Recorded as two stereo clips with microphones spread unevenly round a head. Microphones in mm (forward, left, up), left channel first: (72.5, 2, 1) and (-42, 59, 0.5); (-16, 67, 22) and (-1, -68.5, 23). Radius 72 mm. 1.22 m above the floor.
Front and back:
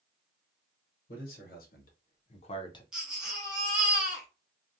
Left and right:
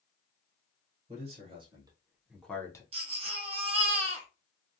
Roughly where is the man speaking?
Ahead right.